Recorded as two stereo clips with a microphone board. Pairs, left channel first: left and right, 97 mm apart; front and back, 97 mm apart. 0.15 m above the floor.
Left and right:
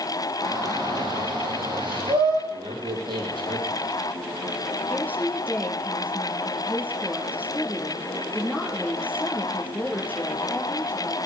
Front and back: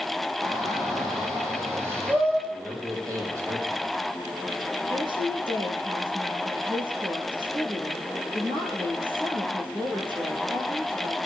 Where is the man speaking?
125° right, 6 m.